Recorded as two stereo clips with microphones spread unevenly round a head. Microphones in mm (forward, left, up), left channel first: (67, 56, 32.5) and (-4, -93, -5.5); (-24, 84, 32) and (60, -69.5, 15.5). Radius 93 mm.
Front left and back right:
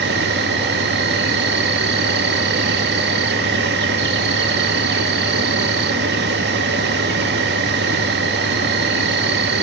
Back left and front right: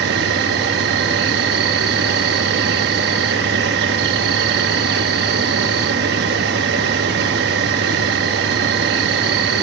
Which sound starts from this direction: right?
An insect, at 0.0 s.